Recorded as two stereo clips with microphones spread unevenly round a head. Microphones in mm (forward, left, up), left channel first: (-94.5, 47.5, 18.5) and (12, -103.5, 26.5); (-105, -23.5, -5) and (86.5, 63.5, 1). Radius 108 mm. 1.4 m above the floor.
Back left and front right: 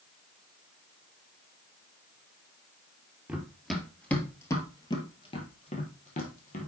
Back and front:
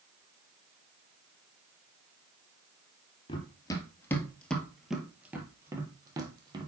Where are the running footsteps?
125° right, 1.4 m; by 6.7 s 85° left, 1.9 m.